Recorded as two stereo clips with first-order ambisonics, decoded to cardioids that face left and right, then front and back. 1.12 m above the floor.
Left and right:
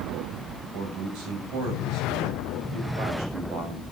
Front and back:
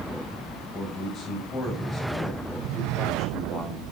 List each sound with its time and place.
0.7 s a man speaking: 60° right, 7 m